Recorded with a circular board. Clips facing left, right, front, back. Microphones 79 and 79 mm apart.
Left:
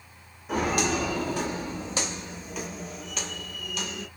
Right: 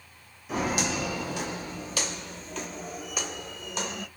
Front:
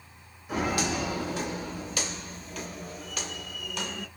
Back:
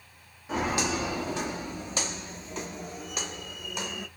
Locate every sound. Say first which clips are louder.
0.5 s footsteps: left 3 dB, even; 115° left, 1.6 m; by 4.1 s 110° right, 1.0 m